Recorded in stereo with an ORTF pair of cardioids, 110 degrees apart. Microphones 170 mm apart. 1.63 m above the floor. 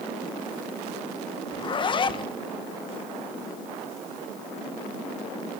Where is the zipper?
30° left, 1.5 m.